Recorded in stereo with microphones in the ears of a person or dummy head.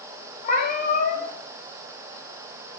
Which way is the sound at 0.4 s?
55° left (ahead or behind).